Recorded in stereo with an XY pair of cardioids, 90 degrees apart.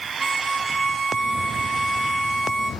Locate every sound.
0.2 s a violin: 30° right, 1.3 m